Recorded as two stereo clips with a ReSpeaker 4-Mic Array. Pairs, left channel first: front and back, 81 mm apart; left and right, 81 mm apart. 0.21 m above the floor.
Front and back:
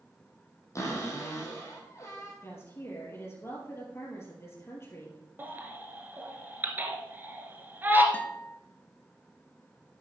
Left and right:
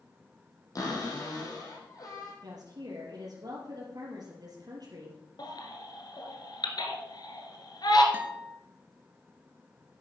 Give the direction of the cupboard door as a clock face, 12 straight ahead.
10 o'clock.